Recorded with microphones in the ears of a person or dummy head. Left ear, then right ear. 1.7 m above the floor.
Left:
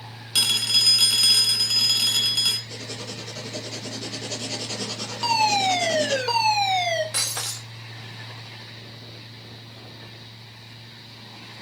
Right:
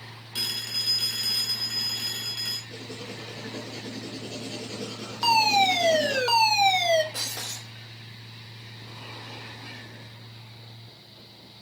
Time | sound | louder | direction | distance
0.3 | a phone ringing | left 9 dB | 40° left (ahead or behind) | 1.3 m
2.7 | writing | left 4 dB | 45° left (ahead or behind) | 2 m
5.2 | a fire alarm | even | 10° right (ahead or behind) | 1.7 m
7.1 | breaking glass | left 5 dB | 20° left (ahead or behind) | 1.2 m